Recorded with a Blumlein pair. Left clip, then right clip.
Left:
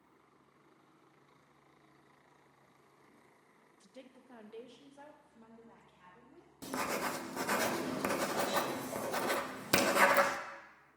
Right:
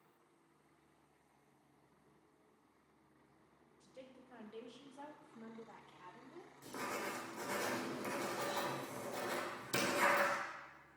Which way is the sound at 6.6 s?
45° left.